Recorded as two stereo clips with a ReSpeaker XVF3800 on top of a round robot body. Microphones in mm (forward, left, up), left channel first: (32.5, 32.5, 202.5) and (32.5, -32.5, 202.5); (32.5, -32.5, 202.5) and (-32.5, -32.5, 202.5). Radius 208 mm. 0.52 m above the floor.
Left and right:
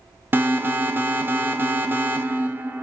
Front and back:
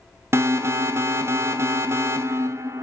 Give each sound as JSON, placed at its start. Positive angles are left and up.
{"t": 0.3, "sound": "an alarm", "azimuth_deg": -140, "distance_m": 1.0}